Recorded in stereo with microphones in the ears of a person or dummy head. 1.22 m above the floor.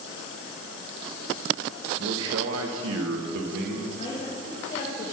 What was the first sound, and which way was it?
A man speaking, 50° right (ahead or behind).